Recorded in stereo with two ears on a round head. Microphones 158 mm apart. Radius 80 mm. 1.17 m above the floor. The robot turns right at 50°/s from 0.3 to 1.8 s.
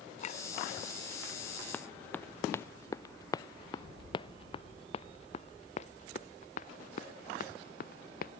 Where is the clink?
45° left (ahead or behind); by 0.4 s 40° left (ahead or behind).